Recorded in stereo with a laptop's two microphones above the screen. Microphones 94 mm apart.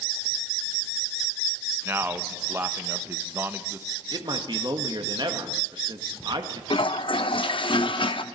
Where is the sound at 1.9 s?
25° right (ahead or behind), 0.6 m.